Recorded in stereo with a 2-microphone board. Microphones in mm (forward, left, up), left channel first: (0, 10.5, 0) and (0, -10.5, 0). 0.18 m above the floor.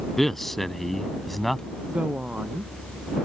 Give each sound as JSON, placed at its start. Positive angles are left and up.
{"t": 0.2, "sound": "a man speaking", "side_deg": 15}
{"t": 1.9, "sound": "a woman speaking", "side_deg": -70}